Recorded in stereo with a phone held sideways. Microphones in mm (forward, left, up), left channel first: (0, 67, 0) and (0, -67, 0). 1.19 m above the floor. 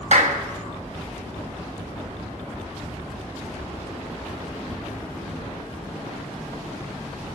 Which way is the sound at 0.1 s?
65° right (ahead or behind).